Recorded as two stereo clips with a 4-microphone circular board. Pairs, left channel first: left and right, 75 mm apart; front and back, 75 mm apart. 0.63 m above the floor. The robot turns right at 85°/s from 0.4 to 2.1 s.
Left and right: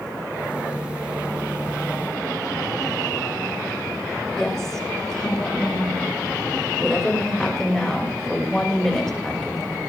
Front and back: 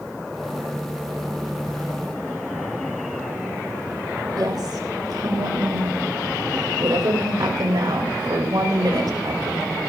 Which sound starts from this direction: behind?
A woman speaking, at 4.4 s.